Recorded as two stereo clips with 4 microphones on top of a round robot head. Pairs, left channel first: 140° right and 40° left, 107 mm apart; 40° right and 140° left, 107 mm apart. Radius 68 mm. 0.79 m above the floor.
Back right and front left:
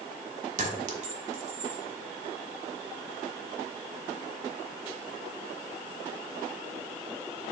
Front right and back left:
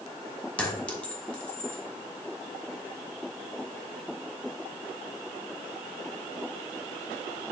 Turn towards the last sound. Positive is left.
turn(degrees=40)